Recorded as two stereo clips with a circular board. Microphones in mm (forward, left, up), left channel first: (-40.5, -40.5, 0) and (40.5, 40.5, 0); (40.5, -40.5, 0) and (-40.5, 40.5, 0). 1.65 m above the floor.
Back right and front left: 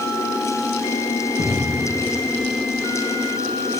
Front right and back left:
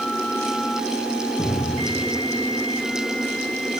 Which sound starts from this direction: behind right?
A cupboard door, at 1.4 s.